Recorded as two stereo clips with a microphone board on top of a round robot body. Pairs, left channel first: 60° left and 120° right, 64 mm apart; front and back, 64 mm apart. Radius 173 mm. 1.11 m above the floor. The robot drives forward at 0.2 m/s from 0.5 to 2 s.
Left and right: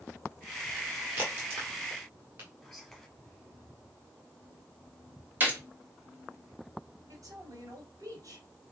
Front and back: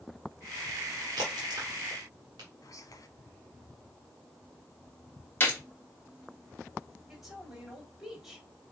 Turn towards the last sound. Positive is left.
turn(degrees=-95)